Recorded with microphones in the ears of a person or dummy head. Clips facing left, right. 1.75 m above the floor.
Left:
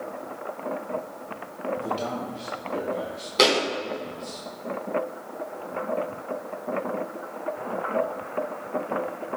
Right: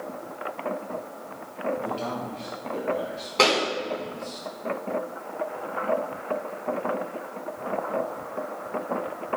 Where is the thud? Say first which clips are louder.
Left 1 dB; 20° left (ahead or behind), 3 m.